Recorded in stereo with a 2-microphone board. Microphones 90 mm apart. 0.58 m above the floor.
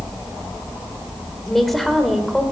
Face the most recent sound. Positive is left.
turn(degrees=0)  # may be behind; listen again after turning